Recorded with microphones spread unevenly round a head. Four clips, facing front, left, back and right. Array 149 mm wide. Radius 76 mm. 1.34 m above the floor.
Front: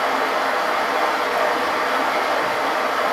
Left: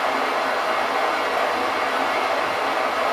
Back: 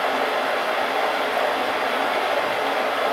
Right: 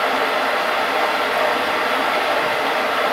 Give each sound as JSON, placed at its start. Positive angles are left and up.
{"t": 0.0, "sound": "running water", "azimuth_deg": -60, "distance_m": 0.8}